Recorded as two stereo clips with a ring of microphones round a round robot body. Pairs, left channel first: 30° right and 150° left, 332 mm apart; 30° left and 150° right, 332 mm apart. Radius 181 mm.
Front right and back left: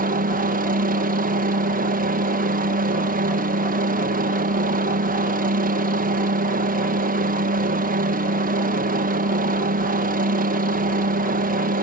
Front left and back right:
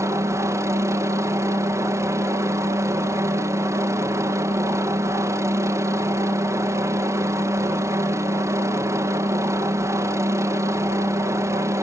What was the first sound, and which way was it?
A helicopter, 140° left.